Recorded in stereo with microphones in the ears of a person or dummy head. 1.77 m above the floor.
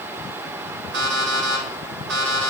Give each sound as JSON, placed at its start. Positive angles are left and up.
{"t": 0.9, "sound": "an alarm clock", "side_deg": -60, "distance_m": 1.8}